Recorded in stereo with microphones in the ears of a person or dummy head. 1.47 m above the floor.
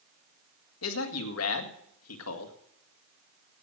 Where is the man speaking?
85° left, 2 m.